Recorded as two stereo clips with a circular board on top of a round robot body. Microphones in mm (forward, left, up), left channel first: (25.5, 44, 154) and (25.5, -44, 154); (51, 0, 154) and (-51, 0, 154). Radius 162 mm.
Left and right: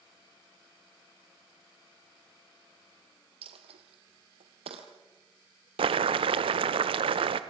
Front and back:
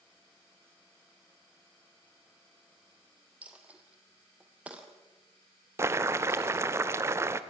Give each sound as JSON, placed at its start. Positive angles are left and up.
{"t": 3.4, "sound": "a dropped coin", "azimuth_deg": -105, "distance_m": 1.7}
{"t": 5.8, "sound": "boiling", "azimuth_deg": -115, "distance_m": 0.6}